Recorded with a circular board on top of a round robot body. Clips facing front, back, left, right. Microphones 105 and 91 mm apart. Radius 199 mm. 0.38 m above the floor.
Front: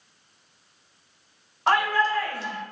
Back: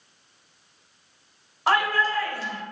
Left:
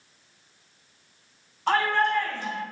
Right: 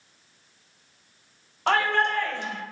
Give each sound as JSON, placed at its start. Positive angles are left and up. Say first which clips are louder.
{"t": 1.7, "sound": "a shout", "louder": "front 1 dB, even", "azimuth_deg": -95, "distance_m": 2.0}